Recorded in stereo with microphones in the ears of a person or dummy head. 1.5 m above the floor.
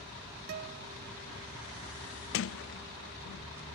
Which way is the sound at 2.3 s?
55° left (ahead or behind).